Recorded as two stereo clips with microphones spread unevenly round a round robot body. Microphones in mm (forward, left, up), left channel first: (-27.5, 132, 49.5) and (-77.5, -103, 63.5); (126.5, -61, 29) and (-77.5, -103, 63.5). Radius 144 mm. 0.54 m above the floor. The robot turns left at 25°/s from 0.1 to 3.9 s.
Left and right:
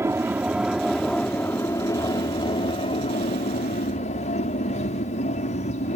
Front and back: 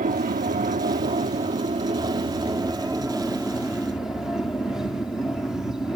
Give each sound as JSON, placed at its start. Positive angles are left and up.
{"t": 0.0, "sound": "an aircraft", "azimuth_deg": -175}